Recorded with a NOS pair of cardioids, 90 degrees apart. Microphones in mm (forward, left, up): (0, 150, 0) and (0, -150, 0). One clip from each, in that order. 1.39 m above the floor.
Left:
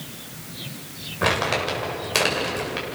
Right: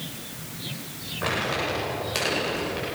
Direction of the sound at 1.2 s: 55° left.